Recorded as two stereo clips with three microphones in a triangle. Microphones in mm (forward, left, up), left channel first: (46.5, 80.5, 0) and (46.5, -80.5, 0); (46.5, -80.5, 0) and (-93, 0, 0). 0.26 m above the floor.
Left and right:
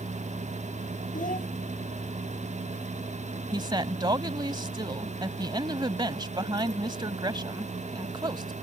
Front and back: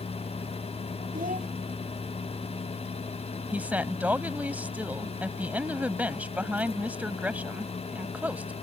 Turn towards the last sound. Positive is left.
turn(degrees=-135)